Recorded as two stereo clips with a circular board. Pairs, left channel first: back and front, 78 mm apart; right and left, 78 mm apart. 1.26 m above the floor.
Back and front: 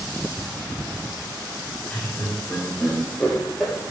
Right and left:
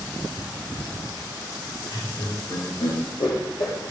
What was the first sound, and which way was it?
Laughter, 105° right.